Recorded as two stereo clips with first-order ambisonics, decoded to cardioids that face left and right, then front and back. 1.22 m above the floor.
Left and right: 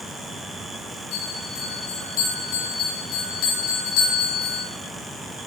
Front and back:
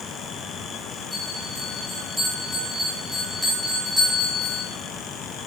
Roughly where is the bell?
Left.